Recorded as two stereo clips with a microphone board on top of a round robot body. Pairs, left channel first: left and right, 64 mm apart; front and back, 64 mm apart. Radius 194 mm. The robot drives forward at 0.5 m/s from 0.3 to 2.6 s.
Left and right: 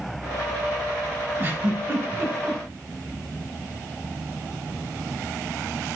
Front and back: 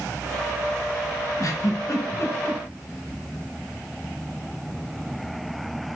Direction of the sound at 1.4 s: 35° right.